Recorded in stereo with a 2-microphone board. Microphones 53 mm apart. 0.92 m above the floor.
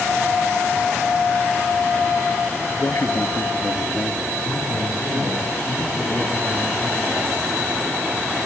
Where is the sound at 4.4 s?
40° left (ahead or behind), 7.5 m.